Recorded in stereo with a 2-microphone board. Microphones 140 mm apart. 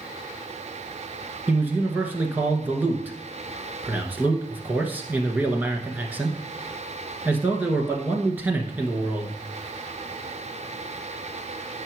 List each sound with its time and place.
1.5 s a man speaking: 10° right (ahead or behind), 1.1 m